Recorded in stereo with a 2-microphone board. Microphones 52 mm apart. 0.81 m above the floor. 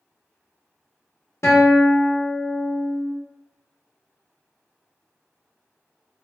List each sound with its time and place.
1.4 s a guitar: 65° left (ahead or behind), 0.8 m